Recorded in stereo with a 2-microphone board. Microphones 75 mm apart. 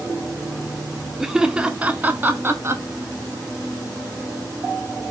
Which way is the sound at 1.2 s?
5° right (ahead or behind).